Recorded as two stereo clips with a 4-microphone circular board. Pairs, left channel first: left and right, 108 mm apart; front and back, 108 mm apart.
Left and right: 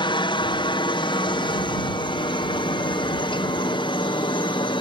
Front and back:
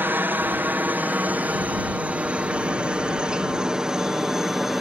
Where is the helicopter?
115° left; by 4.8 s 95° left.